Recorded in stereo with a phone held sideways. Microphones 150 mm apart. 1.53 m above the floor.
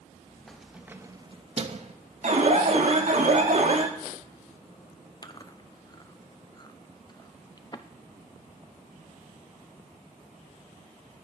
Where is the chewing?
30° left (ahead or behind), 0.6 m.